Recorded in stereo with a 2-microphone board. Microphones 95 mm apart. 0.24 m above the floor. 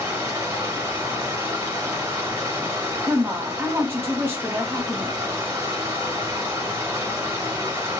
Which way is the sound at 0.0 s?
30° right (ahead or behind).